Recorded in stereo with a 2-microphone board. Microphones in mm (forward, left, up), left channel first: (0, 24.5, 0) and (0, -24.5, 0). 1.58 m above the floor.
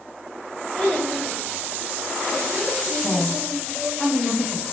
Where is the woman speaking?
15° left (ahead or behind), 2.5 m.